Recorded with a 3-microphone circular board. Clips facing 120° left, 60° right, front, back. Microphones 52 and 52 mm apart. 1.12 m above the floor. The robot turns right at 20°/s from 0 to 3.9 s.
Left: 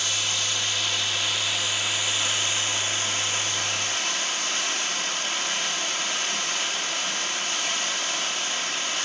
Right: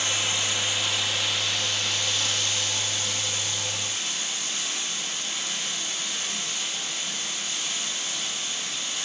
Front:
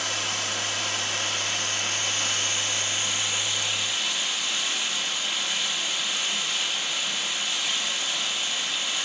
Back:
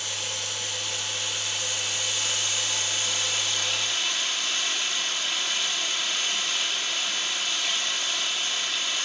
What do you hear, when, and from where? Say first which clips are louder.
0.0 s running water: right 1 dB, front 4 dB; 5° left, 1.4 m; by 9.1 s 85° left, 1.4 m